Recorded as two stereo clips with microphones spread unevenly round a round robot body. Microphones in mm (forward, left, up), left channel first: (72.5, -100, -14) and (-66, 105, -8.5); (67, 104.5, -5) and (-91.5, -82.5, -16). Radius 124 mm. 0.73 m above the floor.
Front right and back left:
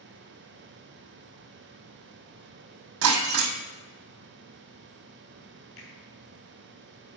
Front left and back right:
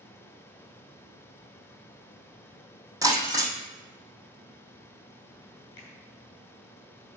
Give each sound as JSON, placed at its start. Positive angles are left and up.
{"t": 3.0, "sound": "breaking glass", "azimuth_deg": 150, "distance_m": 2.0}
{"t": 5.8, "sound": "a finger snap", "azimuth_deg": -25, "distance_m": 4.5}